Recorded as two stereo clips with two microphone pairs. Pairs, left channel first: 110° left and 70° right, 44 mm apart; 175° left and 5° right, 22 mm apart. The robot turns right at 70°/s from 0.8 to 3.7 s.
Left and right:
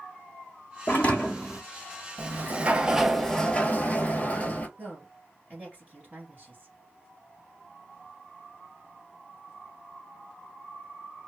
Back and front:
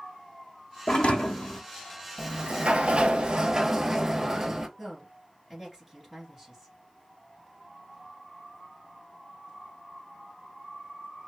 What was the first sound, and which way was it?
A thud, 150° left.